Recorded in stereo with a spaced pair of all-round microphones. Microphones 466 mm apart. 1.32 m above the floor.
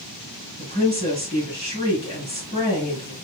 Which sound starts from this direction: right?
A woman speaking, at 0.6 s.